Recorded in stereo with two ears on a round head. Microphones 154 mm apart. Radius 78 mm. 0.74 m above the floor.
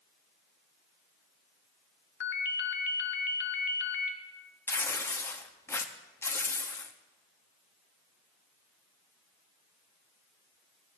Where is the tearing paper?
15° left (ahead or behind), 0.6 m.